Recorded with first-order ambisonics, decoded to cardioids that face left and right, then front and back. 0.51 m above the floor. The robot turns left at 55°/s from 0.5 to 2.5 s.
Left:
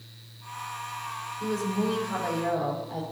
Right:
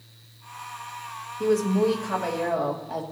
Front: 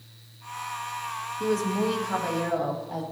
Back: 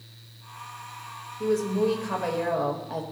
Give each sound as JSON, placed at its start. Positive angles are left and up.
{"t": 1.4, "sound": "a woman speaking", "azimuth_deg": -100, "distance_m": 1.7}